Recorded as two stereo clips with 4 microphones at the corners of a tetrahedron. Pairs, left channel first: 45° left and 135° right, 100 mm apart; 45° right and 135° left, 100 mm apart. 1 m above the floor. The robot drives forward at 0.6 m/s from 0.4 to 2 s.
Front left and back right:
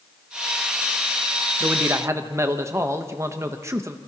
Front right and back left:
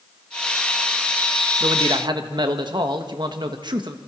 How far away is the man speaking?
About 1.1 m.